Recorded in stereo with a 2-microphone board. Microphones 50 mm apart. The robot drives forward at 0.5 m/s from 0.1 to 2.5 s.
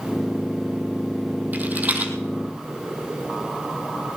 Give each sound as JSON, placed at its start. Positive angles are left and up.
{"t": 1.5, "sound": "a rattle", "side_deg": -35, "distance_m": 2.0}